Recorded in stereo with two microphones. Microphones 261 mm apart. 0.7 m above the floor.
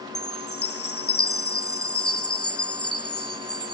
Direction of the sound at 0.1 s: 55° left (ahead or behind).